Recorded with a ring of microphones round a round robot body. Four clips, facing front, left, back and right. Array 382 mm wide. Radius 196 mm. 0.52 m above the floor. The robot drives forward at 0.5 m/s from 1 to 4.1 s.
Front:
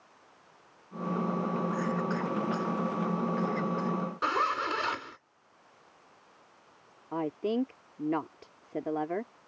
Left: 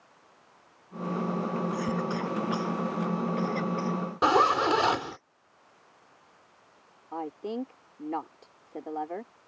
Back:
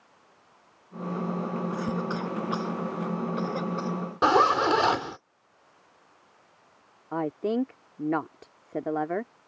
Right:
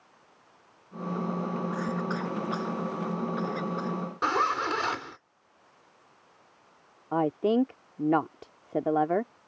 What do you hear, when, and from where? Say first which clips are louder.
1.7 s a cough: left 1 dB, back 1 dB; 155° left; by 5.2 s 160° left
4.2 s a zipper: left 5 dB, back 10 dB; 155° left
7.1 s a woman speaking: right 10 dB, back 3 dB; 110° right